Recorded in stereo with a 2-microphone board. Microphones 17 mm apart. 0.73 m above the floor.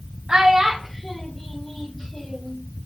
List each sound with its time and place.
0.3 s a child speaking: 55° right (ahead or behind), 0.6 m; by 2.6 s 40° left (ahead or behind), 1.3 m